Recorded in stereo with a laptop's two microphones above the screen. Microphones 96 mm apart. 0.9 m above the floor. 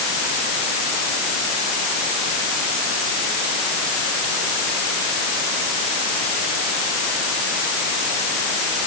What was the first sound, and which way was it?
Only background noise.